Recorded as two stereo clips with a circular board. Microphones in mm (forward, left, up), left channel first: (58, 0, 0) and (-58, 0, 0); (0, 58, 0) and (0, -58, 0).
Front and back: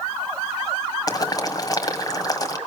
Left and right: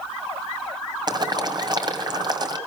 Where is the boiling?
50° right, 2.0 m.